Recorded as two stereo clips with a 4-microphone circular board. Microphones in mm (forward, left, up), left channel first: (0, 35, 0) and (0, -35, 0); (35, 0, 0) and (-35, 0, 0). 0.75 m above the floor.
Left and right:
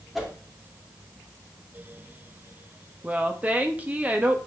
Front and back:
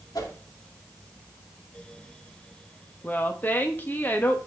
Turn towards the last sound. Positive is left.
turn(degrees=-40)